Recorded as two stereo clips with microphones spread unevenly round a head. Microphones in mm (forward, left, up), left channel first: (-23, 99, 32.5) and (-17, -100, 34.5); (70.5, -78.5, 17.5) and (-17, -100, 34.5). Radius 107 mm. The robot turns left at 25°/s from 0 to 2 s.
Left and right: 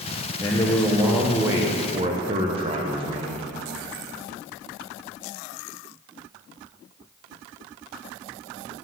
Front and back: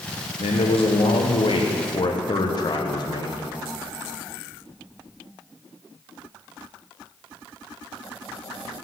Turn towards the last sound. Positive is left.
turn(degrees=-25)